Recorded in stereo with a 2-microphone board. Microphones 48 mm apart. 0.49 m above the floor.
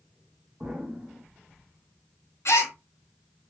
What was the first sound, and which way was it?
An explosion, 35° right (ahead or behind).